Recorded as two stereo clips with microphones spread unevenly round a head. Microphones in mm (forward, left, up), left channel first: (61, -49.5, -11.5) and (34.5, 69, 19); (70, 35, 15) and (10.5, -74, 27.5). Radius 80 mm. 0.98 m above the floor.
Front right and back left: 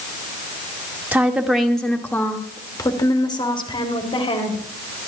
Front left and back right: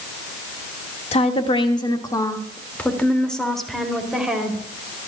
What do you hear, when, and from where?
1.1 s a woman speaking: 25° left, 2 m; by 4.6 s 35° right, 4 m